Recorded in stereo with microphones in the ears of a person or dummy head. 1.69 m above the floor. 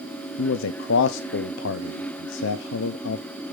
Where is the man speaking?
75° left (ahead or behind), 0.6 m.